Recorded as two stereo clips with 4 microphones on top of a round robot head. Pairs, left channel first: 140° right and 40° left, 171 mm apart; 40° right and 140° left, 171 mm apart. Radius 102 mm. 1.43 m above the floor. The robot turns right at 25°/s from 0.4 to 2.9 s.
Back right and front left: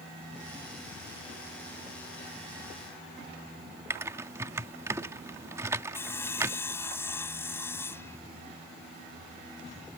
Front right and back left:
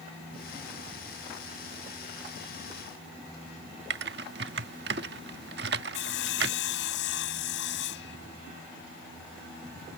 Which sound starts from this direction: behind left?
Typing on a keyboard, at 3.9 s.